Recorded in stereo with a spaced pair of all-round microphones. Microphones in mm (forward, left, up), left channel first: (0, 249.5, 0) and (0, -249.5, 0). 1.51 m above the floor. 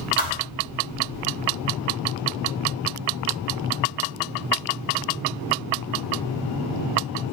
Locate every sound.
0.2 s a thud: 65° left (ahead or behind), 2.5 m